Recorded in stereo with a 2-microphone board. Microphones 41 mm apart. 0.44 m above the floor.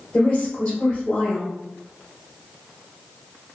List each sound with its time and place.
0.1 s a woman speaking: 25° left (ahead or behind), 1.3 m